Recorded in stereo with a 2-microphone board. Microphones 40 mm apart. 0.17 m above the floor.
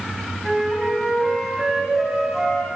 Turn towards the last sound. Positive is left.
turn(degrees=-10)  # may be behind; listen again after turning